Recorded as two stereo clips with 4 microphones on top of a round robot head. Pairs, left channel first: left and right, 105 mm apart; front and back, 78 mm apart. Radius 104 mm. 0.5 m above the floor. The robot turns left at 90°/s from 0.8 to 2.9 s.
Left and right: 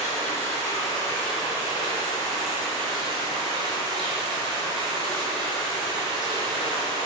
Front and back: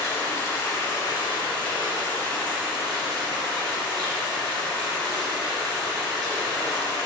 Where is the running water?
50° left, 1.1 m; by 7.1 s 135° right, 1.1 m.